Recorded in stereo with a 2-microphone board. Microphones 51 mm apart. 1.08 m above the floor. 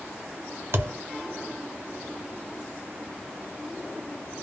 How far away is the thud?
About 0.8 m.